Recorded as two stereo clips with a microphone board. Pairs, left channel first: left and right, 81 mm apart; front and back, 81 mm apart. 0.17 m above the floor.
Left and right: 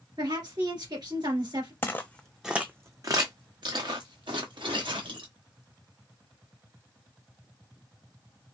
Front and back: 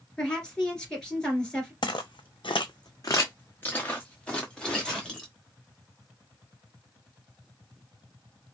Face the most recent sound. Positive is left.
turn(degrees=-85)